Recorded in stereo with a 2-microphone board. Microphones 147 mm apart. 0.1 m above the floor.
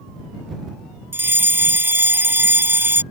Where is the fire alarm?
15° right (ahead or behind).